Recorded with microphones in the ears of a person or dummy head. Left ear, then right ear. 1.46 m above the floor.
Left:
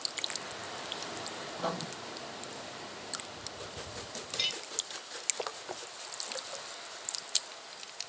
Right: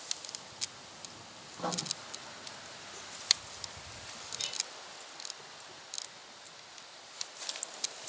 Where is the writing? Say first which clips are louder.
Even; 10° left (ahead or behind), 0.9 m.